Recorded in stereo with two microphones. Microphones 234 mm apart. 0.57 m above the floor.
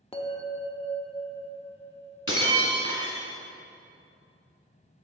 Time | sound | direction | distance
0.1 | a bell | 25° left (ahead or behind) | 0.7 m
2.3 | breaking glass | 65° left (ahead or behind) | 1.6 m